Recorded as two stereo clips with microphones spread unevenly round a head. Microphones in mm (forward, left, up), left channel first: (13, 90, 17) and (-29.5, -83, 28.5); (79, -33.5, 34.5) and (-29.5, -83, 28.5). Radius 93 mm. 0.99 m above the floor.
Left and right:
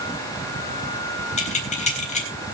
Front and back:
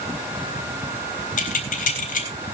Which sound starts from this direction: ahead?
Keys jangling, at 1.4 s.